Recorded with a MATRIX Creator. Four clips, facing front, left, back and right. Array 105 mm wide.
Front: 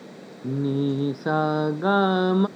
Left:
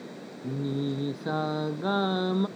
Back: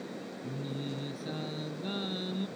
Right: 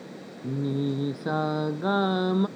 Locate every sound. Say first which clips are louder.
0.4 s singing: right 2 dB, front 16 dB; 10° right